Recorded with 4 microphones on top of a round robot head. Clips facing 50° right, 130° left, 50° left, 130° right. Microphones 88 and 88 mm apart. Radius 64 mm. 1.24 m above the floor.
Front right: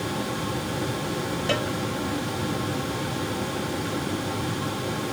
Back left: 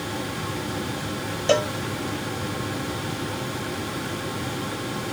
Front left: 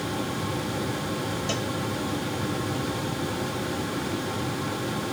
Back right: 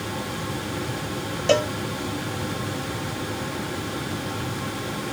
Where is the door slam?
No door slam in this recording.